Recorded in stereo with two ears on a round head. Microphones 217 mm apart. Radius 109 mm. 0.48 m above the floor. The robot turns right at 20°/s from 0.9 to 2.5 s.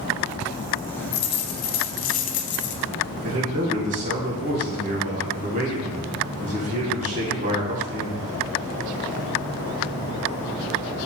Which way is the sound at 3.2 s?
35° right (ahead or behind).